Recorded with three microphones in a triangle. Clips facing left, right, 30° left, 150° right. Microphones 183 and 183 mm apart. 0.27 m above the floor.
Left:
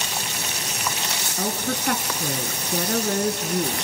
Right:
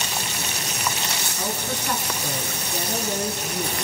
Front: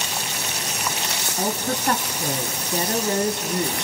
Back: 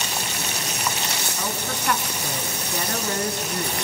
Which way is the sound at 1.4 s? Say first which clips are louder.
Left 4 dB, front 8 dB; 75° left.